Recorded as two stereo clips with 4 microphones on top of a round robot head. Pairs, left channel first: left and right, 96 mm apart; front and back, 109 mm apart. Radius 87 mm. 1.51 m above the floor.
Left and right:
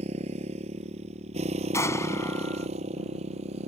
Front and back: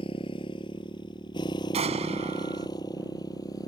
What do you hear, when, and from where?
0.0 s a motorcycle: 60° right; by 3.7 s 70° right
1.7 s an explosion: 150° left